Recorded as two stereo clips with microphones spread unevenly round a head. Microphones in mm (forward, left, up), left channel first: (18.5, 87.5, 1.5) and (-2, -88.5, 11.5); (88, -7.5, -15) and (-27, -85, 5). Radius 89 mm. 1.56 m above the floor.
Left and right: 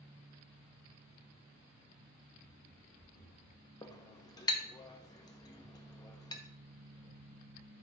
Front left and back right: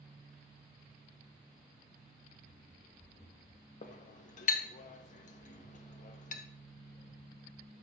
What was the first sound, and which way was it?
Running footsteps, 55° left.